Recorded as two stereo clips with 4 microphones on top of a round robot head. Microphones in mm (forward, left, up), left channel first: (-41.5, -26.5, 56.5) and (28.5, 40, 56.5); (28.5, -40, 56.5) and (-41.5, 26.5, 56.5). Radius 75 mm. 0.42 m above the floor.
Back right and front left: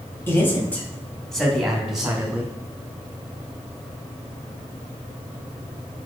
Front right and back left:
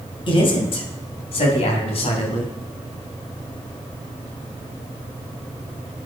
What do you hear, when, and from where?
0.3 s a man speaking: 70° right, 3 m; by 2.5 s 35° right, 4.5 m